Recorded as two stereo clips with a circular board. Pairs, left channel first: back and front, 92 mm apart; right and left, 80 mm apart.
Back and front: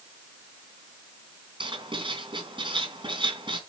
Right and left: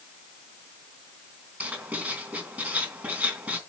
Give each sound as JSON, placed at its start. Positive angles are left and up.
{"t": 1.6, "sound": "writing", "azimuth_deg": 20, "distance_m": 3.0}